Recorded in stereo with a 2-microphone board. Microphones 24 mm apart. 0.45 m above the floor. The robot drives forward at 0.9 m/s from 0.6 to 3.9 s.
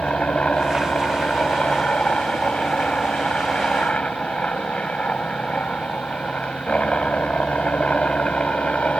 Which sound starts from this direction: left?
A helicopter, at 0.0 s.